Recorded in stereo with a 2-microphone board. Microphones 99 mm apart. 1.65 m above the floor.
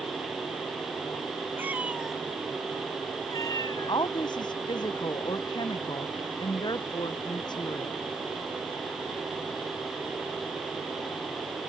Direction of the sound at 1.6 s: 20° right (ahead or behind).